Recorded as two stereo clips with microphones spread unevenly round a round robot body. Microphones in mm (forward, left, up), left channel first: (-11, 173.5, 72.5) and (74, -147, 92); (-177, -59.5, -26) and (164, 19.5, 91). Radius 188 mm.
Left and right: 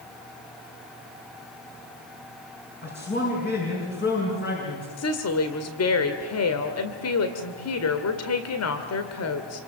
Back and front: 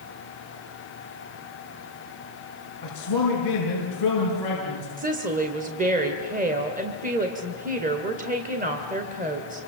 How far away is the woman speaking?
About 2.0 m.